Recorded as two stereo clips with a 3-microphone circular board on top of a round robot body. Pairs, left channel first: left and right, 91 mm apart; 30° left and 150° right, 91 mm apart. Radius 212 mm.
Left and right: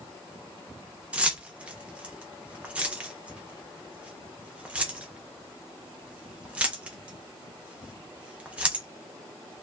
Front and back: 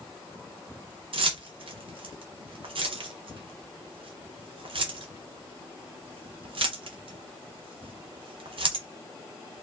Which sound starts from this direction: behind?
Keys jangling, at 1.1 s.